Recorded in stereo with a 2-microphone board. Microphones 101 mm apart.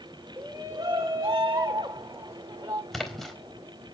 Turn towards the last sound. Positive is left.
turn(degrees=0)  # may be behind; listen again after turning